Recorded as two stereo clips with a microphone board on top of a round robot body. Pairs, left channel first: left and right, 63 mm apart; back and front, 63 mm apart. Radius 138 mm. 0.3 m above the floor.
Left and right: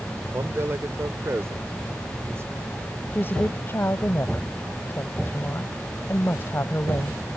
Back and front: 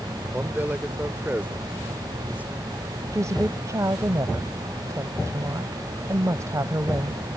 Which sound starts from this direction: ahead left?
A woman speaking, at 3.1 s.